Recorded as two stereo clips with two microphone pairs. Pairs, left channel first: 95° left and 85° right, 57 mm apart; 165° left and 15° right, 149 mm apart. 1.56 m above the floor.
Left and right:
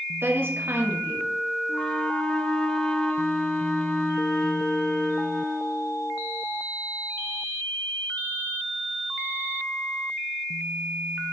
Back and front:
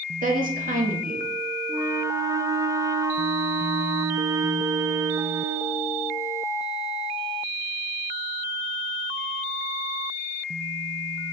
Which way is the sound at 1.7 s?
35° left.